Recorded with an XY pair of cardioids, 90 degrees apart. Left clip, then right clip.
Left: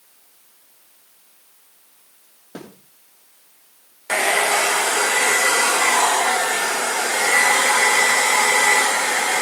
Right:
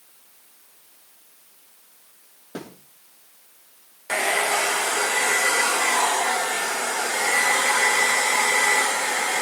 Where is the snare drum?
Straight ahead, 7.5 m.